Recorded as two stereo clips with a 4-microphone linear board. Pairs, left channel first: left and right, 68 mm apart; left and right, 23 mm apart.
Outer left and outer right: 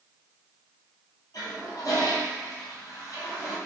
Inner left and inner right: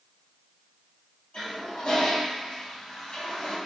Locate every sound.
1.3 s a toilet flushing: 60° left (ahead or behind), 2.0 m